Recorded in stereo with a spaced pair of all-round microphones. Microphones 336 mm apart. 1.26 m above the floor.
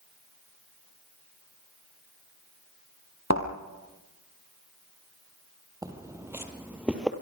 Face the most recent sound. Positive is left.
turn(degrees=0)  # may be behind; listen again after turning